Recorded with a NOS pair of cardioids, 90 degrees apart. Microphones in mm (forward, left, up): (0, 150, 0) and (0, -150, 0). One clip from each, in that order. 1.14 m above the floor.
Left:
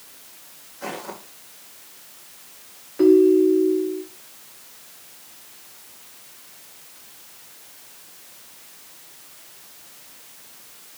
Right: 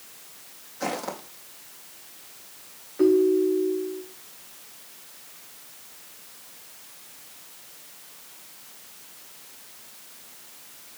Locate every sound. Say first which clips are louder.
0.8 s footsteps: right 2 dB; 70° right, 3.5 m
3.0 s a ringtone: left 5 dB; 15° left, 2 m